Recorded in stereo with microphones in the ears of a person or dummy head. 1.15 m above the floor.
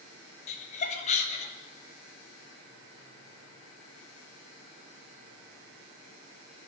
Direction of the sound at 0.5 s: 35° left (ahead or behind).